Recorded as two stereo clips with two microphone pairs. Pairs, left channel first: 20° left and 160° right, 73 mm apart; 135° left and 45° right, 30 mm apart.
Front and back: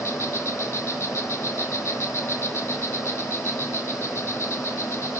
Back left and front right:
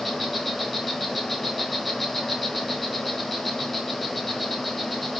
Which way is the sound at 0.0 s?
40° left.